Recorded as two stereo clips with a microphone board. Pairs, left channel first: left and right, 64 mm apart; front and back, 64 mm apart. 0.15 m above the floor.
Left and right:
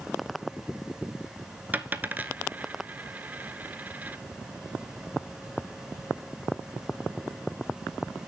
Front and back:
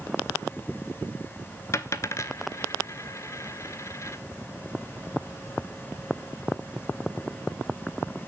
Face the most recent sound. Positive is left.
turn(degrees=-30)